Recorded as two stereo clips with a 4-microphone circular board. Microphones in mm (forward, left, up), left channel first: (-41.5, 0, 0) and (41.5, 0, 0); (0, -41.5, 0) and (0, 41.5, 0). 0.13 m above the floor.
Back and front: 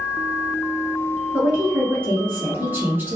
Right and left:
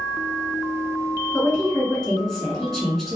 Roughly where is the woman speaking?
Ahead.